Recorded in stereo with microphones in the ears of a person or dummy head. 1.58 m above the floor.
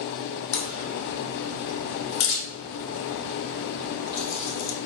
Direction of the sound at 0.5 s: 65° left (ahead or behind).